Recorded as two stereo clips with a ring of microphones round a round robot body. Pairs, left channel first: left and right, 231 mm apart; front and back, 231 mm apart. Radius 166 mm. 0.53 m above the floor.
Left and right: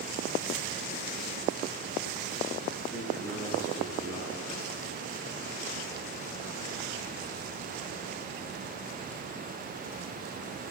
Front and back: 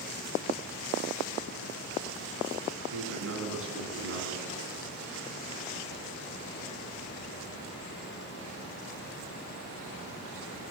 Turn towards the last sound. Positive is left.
turn(degrees=155)